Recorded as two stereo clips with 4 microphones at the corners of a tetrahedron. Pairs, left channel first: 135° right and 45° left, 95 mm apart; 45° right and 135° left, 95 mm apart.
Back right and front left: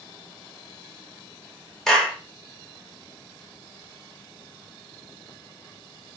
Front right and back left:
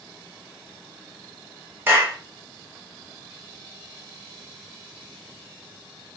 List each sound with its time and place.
1.9 s a clap: 145° left, 0.8 m